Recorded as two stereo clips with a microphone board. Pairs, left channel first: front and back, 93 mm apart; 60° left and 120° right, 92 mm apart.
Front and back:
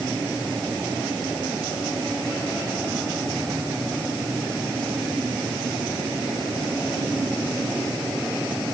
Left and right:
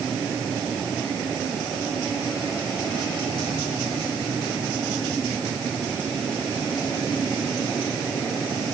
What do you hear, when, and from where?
Only background noise.